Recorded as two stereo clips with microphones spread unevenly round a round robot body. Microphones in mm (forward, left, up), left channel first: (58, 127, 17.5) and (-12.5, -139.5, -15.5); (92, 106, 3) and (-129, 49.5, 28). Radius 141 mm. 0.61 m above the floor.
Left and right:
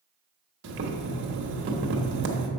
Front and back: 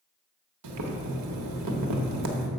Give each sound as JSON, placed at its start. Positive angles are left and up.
{"t": 0.6, "sound": "boiling", "azimuth_deg": -155, "distance_m": 1.1}